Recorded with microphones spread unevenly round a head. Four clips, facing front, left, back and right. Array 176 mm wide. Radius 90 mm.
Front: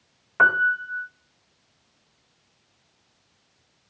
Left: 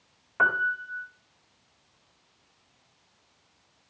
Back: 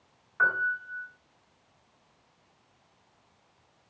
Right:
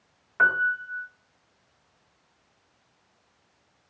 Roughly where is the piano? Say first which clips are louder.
Right 2 dB, front 7 dB; ahead.